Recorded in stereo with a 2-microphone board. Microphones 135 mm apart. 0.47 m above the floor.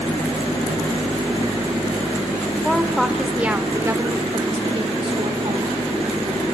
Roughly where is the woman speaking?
Centre.